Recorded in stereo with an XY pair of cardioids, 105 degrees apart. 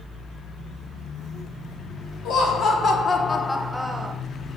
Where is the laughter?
70° left, 0.8 m; by 4.1 s 25° right, 0.6 m.